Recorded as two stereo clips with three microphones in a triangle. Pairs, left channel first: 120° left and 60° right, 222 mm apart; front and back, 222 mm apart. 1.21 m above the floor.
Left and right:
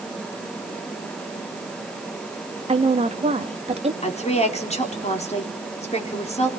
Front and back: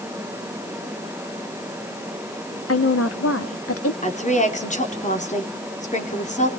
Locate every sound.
2.7 s a woman speaking: 5° left, 1.6 m
4.0 s a woman speaking: 60° left, 3.5 m